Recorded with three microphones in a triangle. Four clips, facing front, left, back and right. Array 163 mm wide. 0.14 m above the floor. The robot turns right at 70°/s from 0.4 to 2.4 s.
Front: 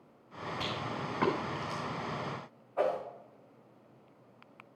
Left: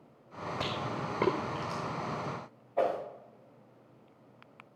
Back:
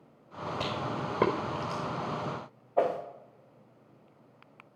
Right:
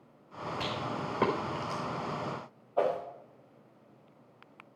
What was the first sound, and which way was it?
A rattle, 140° left.